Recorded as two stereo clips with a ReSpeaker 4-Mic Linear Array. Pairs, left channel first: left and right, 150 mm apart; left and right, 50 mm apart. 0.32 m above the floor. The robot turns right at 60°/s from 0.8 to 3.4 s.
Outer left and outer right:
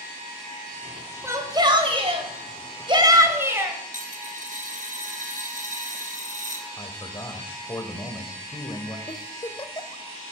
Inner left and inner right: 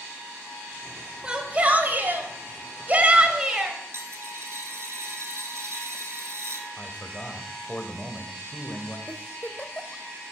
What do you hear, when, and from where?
1.2 s a shout: 155° right, 1.8 m; by 3.8 s 25° right, 1.8 m
3.9 s a dropped coin: 60° right (ahead or behind), 1.4 m
6.8 s a man speaking: 25° left (ahead or behind), 1.4 m
9.1 s a giggle: 35° left (ahead or behind), 0.7 m